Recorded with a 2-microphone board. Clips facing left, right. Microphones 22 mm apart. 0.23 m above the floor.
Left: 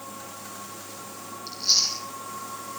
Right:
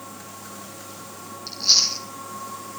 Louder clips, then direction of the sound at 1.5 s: Right 4 dB; 15° right (ahead or behind).